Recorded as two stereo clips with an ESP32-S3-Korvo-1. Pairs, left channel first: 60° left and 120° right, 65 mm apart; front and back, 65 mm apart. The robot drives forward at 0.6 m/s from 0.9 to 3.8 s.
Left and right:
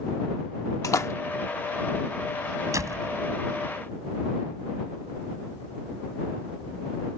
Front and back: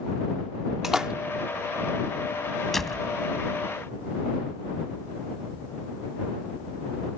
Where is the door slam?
85° right; by 3.1 s 90° right.